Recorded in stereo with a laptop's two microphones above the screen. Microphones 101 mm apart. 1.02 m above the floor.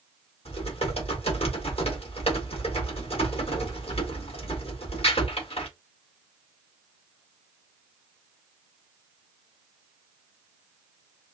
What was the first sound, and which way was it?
Typing on a keyboard, 75° left (ahead or behind).